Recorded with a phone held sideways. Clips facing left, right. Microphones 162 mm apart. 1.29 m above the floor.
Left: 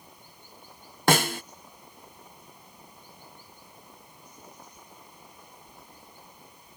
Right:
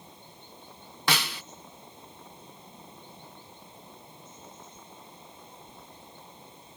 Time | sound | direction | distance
0.0 | running water | 25° right (ahead or behind) | ?
1.1 | a snare drum | 50° left (ahead or behind) | ?